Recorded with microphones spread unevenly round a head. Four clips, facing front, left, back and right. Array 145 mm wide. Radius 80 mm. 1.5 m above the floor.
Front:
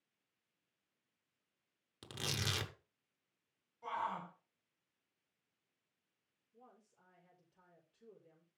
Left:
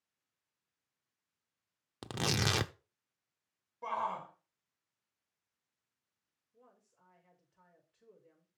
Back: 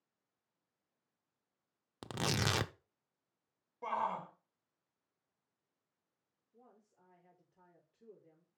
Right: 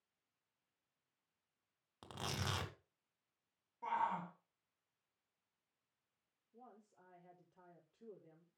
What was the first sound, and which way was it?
Tearing paper, 120° left.